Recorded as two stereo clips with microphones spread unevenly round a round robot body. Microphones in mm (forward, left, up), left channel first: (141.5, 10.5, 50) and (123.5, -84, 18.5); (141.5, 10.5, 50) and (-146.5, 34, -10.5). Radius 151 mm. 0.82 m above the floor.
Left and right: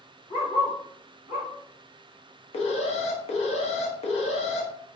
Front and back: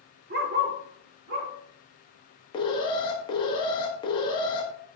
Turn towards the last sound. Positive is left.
turn(degrees=70)